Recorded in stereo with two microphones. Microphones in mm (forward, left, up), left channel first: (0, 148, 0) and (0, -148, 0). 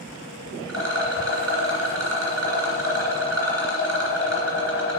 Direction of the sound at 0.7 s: 55° right (ahead or behind).